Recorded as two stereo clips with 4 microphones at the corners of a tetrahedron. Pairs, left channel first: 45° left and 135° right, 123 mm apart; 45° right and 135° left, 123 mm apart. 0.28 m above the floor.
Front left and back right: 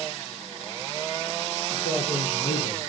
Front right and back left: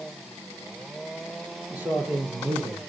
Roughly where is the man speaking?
Ahead left.